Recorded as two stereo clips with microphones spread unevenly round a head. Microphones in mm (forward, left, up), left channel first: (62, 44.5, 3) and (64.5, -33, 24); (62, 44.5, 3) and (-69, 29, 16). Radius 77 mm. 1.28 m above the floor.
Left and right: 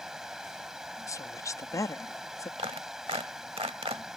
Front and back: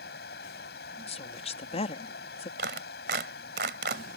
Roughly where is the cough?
No cough in this recording.